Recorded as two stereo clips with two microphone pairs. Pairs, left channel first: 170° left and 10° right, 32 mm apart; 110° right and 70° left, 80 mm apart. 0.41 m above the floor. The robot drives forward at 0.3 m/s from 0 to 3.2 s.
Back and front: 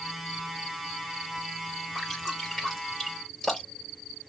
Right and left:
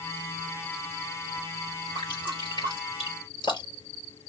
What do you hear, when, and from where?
1.9 s dripping: 110° right, 5 m; by 3.9 s 115° right, 5.5 m